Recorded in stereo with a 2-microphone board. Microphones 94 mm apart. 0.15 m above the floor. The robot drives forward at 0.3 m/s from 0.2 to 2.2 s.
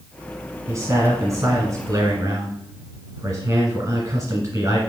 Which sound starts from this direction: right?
A man speaking, at 0.7 s.